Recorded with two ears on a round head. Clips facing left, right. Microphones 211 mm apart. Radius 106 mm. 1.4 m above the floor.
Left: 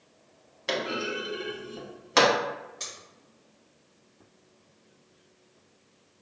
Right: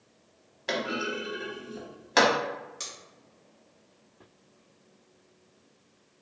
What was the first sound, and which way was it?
A clunk, 5° left (ahead or behind).